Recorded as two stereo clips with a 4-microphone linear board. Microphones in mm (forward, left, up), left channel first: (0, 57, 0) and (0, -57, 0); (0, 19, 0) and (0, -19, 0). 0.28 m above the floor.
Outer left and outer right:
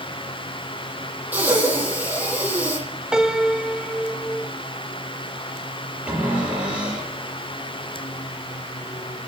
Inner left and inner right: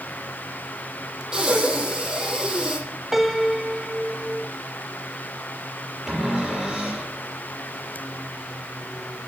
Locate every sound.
1.3 s breathing: 15° right (ahead or behind), 7 m
3.1 s a piano: 5° right (ahead or behind), 1.0 m
6.1 s a cupboard door: 10° right (ahead or behind), 7.5 m